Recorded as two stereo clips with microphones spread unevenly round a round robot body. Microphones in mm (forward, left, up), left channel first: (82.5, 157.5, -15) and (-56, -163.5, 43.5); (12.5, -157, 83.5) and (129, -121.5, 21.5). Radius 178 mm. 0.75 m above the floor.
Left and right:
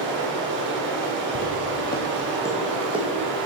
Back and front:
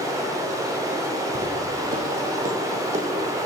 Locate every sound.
0.0 s running water: 50° right, 1.2 m
1.4 s footsteps: 25° left, 1.1 m; by 3.5 s 40° right, 2.0 m